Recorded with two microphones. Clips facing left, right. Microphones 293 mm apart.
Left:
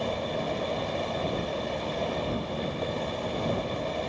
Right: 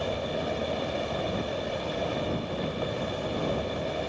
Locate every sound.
0.0 s an insect: 5° right (ahead or behind)